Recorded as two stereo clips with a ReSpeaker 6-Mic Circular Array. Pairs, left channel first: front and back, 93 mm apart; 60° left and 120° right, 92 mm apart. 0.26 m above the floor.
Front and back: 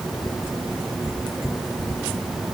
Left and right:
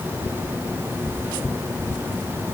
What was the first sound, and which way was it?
Only background noise.